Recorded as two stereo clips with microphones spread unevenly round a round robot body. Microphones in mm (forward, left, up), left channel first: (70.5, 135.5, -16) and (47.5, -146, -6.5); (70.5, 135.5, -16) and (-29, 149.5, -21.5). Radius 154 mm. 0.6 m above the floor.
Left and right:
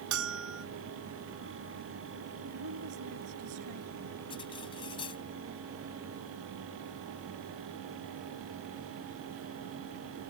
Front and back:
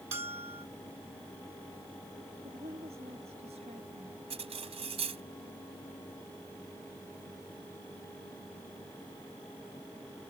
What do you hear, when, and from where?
0.1 s a bell: 145° right
2.4 s a woman speaking: 130° right
4.3 s cutlery clinking: 160° left